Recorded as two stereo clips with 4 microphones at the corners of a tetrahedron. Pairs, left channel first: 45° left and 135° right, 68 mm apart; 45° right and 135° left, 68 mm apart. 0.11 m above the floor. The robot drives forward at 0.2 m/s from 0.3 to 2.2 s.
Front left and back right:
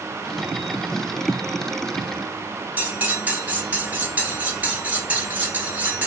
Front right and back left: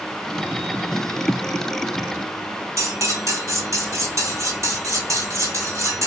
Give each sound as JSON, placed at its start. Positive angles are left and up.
{"t": 2.8, "sound": "cutlery clinking", "azimuth_deg": 165, "distance_m": 1.1}